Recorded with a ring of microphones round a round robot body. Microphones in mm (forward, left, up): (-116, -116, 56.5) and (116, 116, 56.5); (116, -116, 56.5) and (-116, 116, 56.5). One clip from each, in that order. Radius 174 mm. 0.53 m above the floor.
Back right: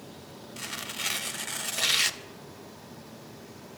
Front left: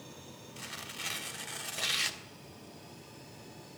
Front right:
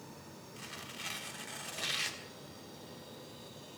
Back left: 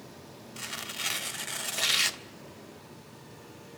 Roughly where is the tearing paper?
Behind.